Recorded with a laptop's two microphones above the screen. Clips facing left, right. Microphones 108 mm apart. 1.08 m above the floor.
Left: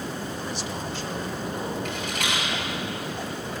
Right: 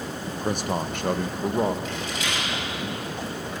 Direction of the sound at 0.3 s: 45° right (ahead or behind).